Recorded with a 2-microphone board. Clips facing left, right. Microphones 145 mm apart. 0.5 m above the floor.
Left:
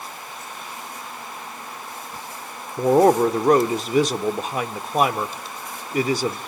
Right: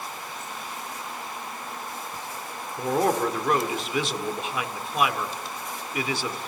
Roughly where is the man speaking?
Left.